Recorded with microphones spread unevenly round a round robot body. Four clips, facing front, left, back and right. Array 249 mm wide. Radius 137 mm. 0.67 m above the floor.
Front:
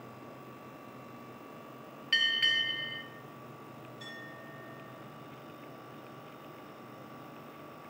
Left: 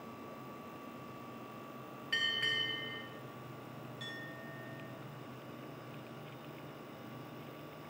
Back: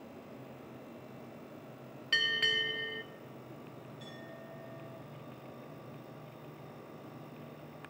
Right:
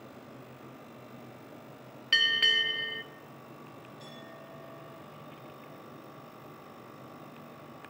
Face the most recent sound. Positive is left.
turn(degrees=45)